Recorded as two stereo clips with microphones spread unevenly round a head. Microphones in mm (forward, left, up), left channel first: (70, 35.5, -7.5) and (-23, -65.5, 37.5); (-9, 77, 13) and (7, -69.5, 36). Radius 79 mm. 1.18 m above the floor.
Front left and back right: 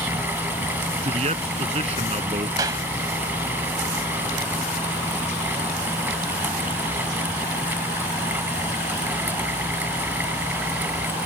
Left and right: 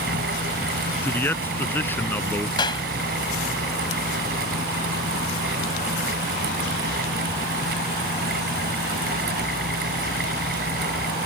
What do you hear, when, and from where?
0.0 s a fan: 65° right
1.0 s a man speaking: 175° left
2.6 s a clap: 160° left